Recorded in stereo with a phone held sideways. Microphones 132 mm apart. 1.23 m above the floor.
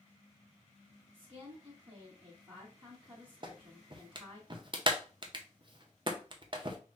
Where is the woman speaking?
45° right (ahead or behind), 1.4 m.